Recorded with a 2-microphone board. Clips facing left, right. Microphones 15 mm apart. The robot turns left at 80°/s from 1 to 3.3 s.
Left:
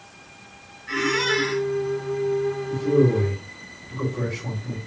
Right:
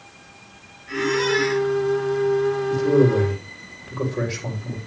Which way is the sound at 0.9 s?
25° left.